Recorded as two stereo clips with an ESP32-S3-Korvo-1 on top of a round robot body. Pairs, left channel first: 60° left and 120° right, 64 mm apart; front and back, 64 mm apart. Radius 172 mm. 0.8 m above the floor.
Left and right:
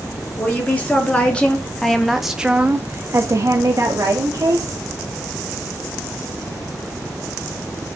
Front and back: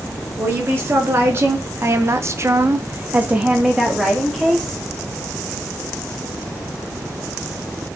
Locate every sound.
0.4 s a woman speaking: 125° left, 2.5 m; by 4.8 s 85° right, 2.0 m